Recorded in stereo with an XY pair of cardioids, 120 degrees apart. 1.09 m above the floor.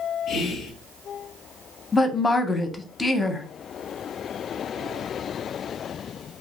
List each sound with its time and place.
0.3 s whispering: 65° left, 0.8 m
1.9 s a woman speaking: 25° left, 0.6 m